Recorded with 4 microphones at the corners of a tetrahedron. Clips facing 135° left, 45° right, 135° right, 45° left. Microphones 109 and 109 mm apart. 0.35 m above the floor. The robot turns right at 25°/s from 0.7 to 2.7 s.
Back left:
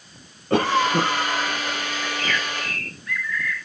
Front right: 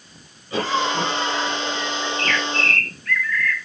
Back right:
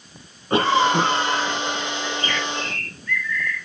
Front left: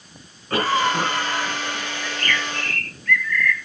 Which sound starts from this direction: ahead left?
A bird, at 2.0 s.